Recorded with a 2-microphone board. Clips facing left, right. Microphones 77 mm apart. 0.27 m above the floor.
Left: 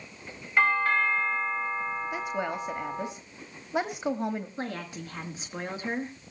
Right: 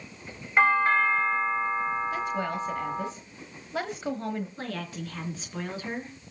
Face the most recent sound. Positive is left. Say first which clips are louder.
# even
turn(degrees=20)  # may be behind; listen again after turning